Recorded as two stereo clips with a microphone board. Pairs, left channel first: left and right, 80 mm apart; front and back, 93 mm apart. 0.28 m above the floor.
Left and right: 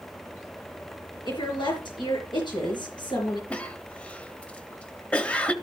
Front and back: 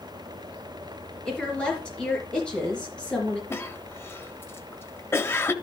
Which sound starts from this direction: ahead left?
A cough, at 3.5 s.